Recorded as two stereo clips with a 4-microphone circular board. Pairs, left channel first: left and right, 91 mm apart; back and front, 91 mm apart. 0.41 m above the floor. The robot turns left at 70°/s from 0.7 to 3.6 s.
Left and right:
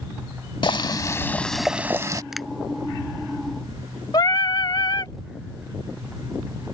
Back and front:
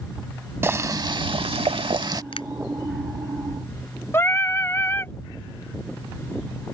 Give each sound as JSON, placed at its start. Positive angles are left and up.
{"t": 0.6, "sound": "boiling", "azimuth_deg": 60}
{"t": 2.3, "sound": "a finger snap", "azimuth_deg": -175}
{"t": 4.1, "sound": "singing", "azimuth_deg": 120}